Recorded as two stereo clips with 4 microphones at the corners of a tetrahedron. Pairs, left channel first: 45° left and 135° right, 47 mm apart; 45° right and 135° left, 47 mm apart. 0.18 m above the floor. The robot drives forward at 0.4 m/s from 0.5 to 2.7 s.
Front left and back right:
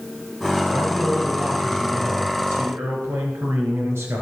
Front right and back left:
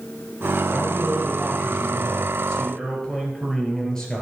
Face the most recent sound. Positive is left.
turn(degrees=-120)